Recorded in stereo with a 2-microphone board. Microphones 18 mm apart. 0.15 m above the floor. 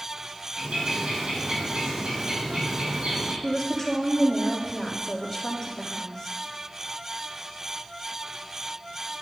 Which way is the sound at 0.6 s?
75° right (ahead or behind).